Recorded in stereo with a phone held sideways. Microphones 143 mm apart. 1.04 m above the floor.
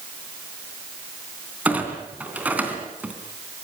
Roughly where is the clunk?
Centre.